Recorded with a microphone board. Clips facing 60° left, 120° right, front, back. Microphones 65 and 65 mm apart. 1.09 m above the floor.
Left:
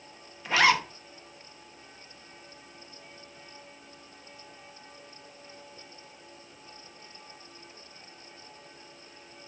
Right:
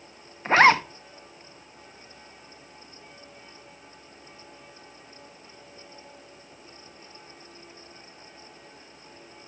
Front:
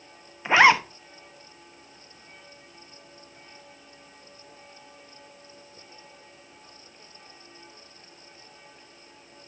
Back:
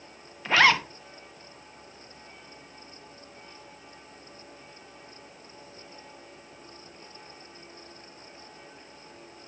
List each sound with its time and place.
0.5 s a zipper: 70° right, 0.9 m